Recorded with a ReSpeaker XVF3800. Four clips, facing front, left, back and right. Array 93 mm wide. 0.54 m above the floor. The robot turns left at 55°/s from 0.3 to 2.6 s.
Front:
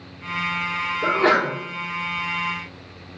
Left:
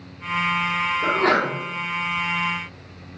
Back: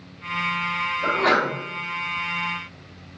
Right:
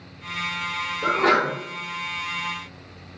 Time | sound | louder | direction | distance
1.0 | a sneeze | right 1 dB, front 2 dB | straight ahead | 1.7 m